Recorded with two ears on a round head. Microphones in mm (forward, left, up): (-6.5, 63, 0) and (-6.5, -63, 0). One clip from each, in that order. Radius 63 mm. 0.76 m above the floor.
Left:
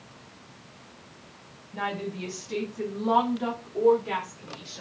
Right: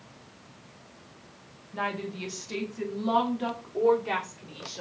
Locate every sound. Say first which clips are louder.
1.7 s a woman speaking: even; 15° right (ahead or behind), 1.0 m; by 4.8 s 25° right (ahead or behind), 2.5 m